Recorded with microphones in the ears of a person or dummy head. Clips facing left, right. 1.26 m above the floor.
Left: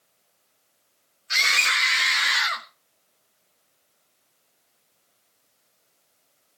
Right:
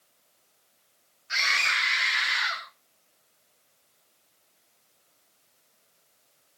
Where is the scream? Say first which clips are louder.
Left 3 dB; 45° left (ahead or behind), 3 m; by 2.6 s 80° left, 1.6 m.